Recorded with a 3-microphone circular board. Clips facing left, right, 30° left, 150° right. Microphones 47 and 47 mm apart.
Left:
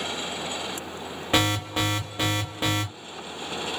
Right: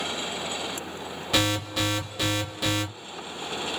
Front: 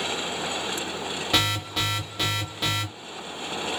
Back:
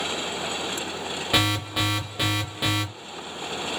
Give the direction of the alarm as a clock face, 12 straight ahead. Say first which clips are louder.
Left 2 dB, back 2 dB; 7 o'clock.